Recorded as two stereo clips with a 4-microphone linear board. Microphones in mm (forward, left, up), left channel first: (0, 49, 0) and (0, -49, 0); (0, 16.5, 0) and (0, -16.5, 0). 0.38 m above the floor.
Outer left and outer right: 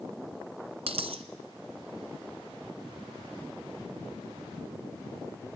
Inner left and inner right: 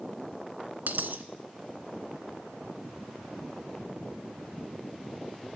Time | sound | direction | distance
0.9 | a dropped coin | 75° right (ahead or behind) | 1.3 m